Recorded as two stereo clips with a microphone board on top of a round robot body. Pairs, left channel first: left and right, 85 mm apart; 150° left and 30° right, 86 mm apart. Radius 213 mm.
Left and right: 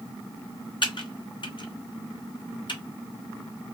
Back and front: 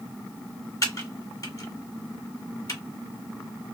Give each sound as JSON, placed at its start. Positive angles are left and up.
{"t": 0.8, "sound": "typing on a keyboard", "azimuth_deg": 100, "distance_m": 2.0}